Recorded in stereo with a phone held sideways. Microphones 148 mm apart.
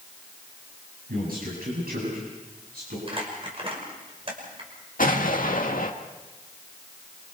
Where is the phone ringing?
No phone ringing in this recording.